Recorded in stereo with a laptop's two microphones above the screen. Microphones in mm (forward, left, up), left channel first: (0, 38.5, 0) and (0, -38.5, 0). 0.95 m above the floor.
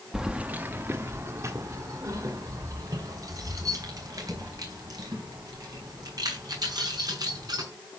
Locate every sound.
0.1 s keys jangling: 5° right (ahead or behind), 0.7 m; by 7.6 s 60° right (ahead or behind), 6.5 m